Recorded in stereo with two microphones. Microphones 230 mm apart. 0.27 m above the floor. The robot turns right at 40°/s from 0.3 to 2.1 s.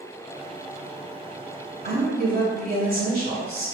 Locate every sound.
1.8 s a woman speaking: 35° right (ahead or behind), 1.7 m; by 3.8 s 40° right (ahead or behind), 1.7 m